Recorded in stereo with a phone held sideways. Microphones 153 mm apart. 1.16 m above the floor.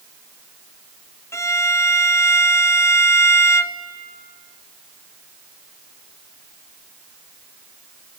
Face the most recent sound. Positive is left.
turn(degrees=20)  # may be behind; listen again after turning